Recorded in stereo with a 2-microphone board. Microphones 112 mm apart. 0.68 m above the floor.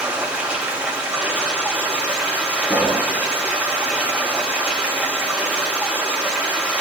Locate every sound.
0.0 s running water: 10° right (ahead or behind), 3 m
2.6 s a pop: 15° left (ahead or behind), 2.5 m